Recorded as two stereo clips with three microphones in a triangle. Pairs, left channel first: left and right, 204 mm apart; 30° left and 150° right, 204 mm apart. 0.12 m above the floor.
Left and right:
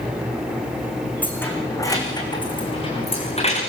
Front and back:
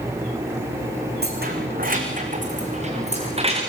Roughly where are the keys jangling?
Behind.